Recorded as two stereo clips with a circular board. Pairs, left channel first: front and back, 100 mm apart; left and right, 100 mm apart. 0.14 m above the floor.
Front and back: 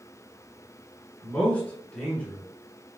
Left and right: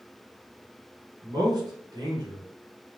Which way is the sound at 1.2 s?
70° right.